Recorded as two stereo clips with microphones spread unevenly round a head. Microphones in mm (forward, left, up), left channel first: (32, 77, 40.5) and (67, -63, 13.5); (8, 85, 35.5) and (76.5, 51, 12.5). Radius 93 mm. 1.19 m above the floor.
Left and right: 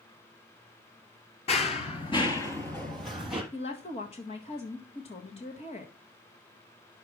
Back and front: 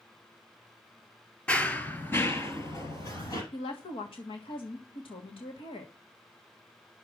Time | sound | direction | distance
1.5 | running footsteps | 105° left | 1.7 m
3.5 | a woman speaking | 165° left | 1.5 m